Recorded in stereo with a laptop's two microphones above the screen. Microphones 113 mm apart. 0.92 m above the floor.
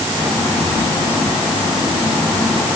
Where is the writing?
I don't hear writing.